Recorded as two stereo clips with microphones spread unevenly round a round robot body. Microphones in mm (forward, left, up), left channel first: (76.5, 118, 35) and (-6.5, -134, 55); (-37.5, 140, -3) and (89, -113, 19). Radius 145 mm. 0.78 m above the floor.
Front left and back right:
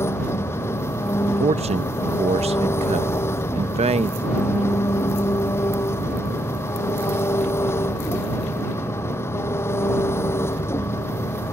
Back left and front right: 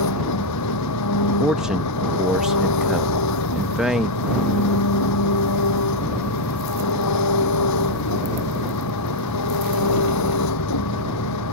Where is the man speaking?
160° right.